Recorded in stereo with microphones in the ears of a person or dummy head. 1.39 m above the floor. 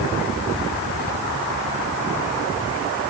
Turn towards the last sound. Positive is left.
No sound to turn to.